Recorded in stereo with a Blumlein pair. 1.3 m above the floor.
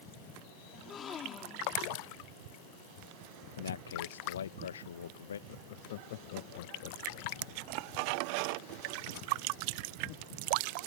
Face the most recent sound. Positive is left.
turn(degrees=50)